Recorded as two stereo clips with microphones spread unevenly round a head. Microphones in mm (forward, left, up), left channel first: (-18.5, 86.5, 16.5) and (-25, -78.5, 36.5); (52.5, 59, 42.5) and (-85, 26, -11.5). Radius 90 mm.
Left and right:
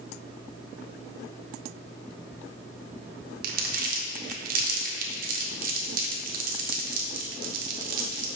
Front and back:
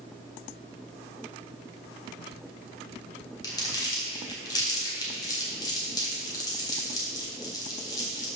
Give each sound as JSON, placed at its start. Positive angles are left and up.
{"t": 3.4, "sound": "crumpling", "azimuth_deg": -50, "distance_m": 1.1}